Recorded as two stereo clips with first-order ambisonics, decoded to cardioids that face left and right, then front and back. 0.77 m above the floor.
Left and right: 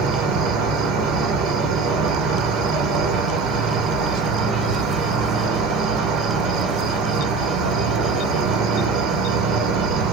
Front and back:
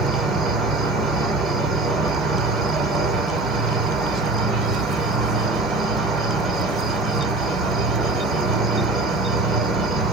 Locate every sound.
0.0 s an insect: 115° right, 1.4 m